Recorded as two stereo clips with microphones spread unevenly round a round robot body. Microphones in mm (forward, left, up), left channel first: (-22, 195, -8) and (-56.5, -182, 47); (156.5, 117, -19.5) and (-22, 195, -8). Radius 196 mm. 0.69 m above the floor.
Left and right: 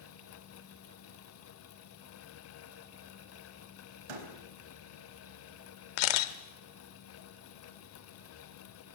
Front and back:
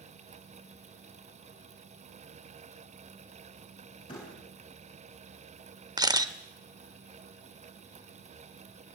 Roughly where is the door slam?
Right.